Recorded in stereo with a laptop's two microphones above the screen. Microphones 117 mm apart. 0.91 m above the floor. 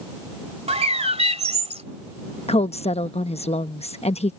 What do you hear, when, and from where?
0.7 s a bird: 65° right (ahead or behind)
2.5 s a woman speaking: 60° left (ahead or behind)